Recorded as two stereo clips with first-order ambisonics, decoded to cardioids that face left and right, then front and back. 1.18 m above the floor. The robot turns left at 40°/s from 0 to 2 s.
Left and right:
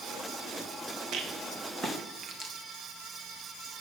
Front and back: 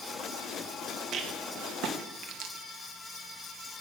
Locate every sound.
1.1 s a rattle: 125° right, 1.2 m; by 2.5 s 160° right, 1.2 m